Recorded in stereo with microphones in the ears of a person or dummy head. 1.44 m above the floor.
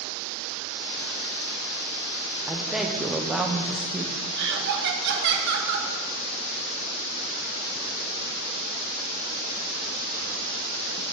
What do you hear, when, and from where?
2.5 s a woman speaking: 5° right (ahead or behind), 0.6 m
4.3 s laughter: 65° right (ahead or behind), 1.0 m